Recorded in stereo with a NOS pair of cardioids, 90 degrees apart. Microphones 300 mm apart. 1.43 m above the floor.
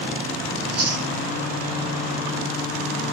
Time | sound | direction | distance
0.6 | chewing | 60° right | 1.1 m